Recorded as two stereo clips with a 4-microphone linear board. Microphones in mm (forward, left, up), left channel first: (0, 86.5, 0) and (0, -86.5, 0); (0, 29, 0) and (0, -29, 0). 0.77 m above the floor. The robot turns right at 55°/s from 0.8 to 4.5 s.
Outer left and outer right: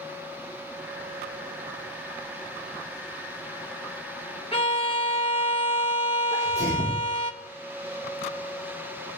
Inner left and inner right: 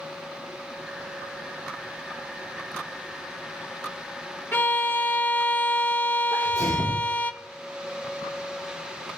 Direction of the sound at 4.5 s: 35° left (ahead or behind).